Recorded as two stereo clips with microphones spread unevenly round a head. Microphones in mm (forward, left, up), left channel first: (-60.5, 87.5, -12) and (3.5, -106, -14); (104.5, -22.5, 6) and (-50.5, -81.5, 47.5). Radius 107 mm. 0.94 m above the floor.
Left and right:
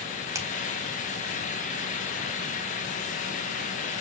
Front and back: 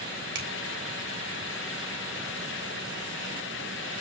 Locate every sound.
0.3 s a finger snap: 150° right, 4.5 m